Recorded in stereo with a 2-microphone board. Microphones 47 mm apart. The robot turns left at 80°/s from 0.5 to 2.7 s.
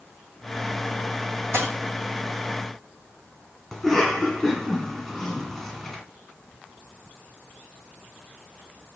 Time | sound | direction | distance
1.5 | a dropped coin | 70° right (ahead or behind) | 1.9 m
3.7 | a cough | 5° left (ahead or behind) | 1.6 m